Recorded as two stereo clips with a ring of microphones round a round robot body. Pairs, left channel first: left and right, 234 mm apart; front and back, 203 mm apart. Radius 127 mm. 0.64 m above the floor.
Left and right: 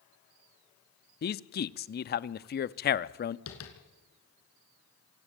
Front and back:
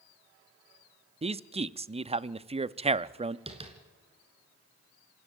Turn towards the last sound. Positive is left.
turn(degrees=120)